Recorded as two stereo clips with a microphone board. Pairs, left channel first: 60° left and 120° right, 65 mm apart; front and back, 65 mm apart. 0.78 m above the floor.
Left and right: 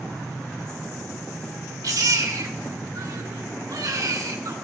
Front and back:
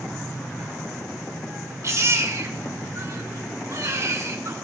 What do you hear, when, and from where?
1.8 s a baby crying: 140° right, 2 m